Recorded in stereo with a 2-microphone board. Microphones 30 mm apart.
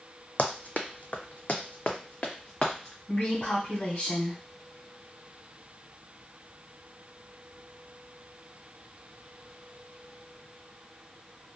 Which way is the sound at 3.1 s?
55° left (ahead or behind).